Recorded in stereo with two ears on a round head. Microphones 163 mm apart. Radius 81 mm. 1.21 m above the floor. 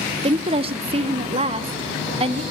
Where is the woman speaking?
30° right (ahead or behind), 0.6 m.